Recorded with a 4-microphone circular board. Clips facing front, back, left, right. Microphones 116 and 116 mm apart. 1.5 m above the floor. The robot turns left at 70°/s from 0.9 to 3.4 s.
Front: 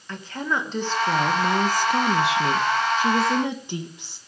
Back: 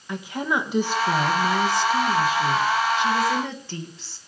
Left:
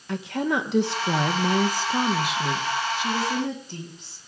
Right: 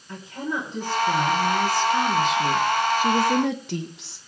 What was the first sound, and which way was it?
A woman speaking, 100° left.